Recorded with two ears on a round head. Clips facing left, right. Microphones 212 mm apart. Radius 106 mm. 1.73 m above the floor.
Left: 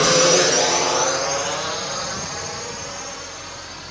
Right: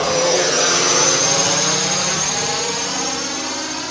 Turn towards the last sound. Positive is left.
turn(degrees=-80)